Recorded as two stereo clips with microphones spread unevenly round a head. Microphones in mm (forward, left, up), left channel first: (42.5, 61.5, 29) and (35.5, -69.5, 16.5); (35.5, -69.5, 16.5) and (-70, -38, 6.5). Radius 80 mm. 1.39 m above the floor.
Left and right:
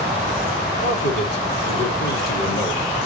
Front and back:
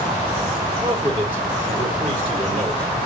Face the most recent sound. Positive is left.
turn(degrees=105)